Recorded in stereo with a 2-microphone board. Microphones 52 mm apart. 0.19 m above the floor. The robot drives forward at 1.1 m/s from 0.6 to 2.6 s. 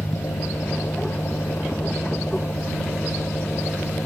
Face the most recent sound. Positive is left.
turn(degrees=60)  # may be behind; listen again after turning